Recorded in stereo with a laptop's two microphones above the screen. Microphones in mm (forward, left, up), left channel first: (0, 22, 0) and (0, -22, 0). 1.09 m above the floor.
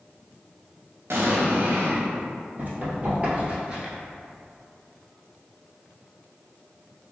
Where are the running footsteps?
35° right (ahead or behind), 1.8 m; by 3.9 s 15° right (ahead or behind), 1.0 m.